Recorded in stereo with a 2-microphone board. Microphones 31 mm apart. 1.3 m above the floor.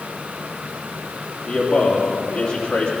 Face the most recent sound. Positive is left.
turn(degrees=50)  # may be behind; listen again after turning